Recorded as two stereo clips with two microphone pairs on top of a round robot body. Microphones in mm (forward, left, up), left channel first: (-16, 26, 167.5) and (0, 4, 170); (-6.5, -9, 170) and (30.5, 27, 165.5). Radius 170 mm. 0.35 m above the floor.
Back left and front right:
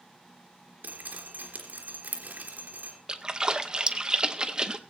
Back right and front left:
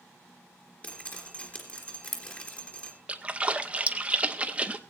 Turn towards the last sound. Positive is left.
turn(degrees=5)